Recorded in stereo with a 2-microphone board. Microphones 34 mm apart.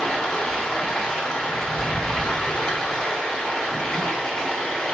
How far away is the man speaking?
No man speaking in this recording.